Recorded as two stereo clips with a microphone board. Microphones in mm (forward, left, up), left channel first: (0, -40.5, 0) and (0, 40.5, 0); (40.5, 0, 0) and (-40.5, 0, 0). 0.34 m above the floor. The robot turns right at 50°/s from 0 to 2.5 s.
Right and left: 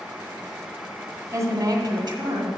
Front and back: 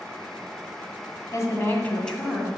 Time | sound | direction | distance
1.3 | a woman speaking | 40° left | 1.9 m